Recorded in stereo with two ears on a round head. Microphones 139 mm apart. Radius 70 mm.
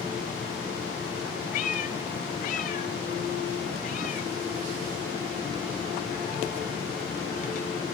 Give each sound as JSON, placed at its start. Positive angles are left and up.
{"t": 1.5, "sound": "a cat meowing", "side_deg": 50, "distance_m": 0.7}